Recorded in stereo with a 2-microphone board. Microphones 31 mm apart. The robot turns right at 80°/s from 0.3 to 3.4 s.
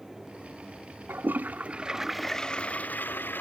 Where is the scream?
I don't hear a scream.